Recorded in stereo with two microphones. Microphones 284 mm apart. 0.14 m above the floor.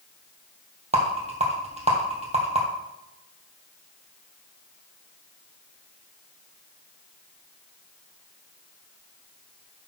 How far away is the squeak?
I don't hear a squeak.